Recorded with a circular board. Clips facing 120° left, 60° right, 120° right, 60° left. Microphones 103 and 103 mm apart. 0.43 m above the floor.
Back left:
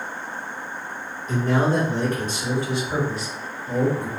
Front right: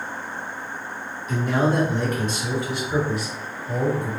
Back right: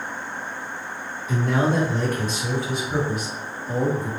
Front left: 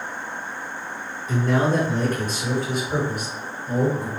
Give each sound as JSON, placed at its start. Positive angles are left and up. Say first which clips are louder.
{"t": 1.3, "sound": "a man speaking", "louder": "back left 1 dB, front left 1 dB", "azimuth_deg": 100, "distance_m": 1.7}